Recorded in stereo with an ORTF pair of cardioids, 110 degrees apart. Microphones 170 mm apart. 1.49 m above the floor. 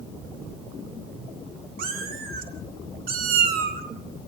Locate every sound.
1.8 s a cat meowing: 65° right, 3 m